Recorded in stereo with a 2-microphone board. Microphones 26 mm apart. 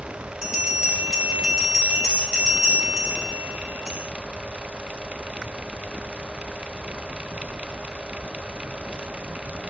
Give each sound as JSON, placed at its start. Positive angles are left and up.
{"t": 0.4, "sound": "a bell", "side_deg": -35, "distance_m": 2.5}